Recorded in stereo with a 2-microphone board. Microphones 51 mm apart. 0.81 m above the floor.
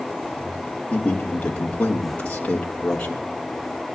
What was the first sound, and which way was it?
A man speaking, 25° left (ahead or behind).